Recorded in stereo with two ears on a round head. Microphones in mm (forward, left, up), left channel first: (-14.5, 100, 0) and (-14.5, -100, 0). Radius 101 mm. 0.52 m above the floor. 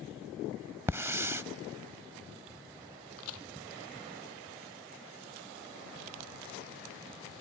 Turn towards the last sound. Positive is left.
turn(degrees=70)  # may be behind; listen again after turning